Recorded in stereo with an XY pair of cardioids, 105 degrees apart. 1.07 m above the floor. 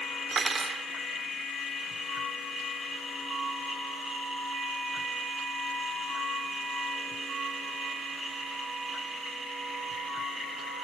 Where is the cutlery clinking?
40° right.